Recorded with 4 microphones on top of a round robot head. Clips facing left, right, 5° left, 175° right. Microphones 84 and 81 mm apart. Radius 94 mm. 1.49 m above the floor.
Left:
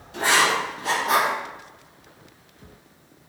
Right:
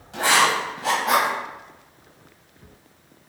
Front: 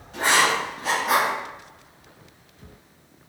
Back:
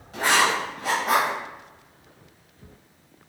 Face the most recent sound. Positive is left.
turn(degrees=-115)